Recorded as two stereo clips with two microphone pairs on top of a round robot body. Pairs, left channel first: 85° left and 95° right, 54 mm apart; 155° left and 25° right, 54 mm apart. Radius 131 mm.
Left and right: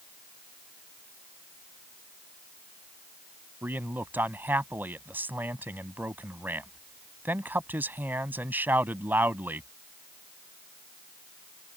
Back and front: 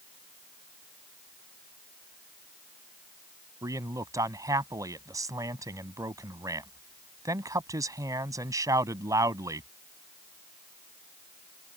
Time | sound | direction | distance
3.6 | a man speaking | 35° right | ?